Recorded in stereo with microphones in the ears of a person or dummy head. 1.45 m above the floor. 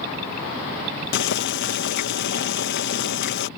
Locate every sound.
1.1 s boiling: 65° left (ahead or behind)